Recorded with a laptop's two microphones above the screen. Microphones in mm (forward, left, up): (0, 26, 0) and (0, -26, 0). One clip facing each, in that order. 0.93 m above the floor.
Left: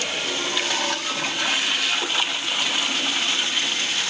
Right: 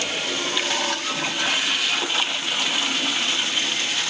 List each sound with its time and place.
Only background noise.